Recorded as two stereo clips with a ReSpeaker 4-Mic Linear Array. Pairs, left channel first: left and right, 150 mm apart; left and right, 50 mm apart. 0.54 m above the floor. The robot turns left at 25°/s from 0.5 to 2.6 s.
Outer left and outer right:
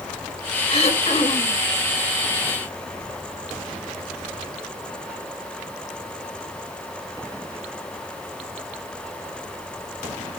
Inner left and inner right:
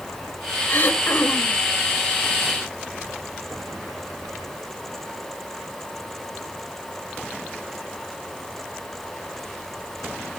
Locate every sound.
0.7 s throat clearing: 45° left (ahead or behind), 1.7 m; by 1.6 s 40° left (ahead or behind), 1.7 m